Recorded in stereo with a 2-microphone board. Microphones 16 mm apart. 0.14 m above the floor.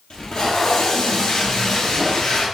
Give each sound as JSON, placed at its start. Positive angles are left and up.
{"t": 0.1, "sound": "tape being pulled", "side_deg": 75, "distance_m": 1.0}